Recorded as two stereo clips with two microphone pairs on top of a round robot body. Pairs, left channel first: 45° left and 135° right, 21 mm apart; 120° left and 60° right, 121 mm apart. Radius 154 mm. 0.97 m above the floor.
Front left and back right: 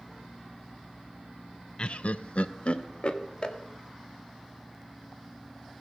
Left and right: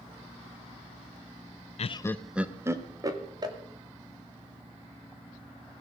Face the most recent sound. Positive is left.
turn(degrees=-5)